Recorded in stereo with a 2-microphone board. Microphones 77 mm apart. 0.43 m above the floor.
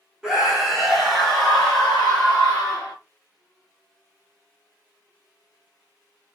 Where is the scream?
5° right (ahead or behind), 1.2 m; by 2.9 s 10° left (ahead or behind), 1.9 m.